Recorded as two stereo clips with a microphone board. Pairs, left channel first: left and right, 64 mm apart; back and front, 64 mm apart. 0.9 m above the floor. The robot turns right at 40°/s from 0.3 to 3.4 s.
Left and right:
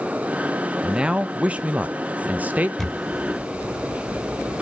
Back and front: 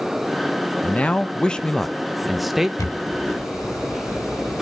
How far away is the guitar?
I don't hear a guitar.